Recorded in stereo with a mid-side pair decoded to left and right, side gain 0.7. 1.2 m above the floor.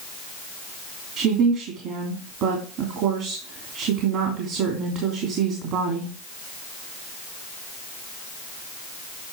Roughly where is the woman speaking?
Ahead right.